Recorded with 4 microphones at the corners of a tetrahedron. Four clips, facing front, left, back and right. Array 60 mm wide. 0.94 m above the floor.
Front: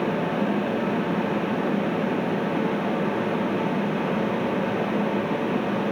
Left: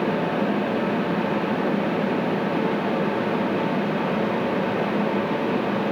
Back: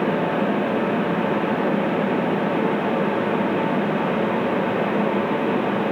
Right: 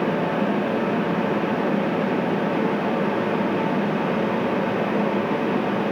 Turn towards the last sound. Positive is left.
No sound to turn to.